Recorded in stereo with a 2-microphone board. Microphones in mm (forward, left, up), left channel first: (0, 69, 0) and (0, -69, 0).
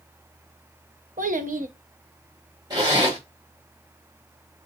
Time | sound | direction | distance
1.2 | a child speaking | 75° right (ahead or behind) | 0.7 m
2.7 | a zipper | 30° right (ahead or behind) | 2 m